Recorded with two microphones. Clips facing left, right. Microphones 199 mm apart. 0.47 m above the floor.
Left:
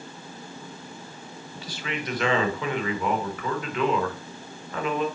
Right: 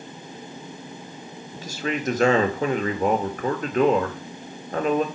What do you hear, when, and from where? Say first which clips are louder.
1.5 s a man speaking: right 6 dB; 45° right (ahead or behind), 1.4 m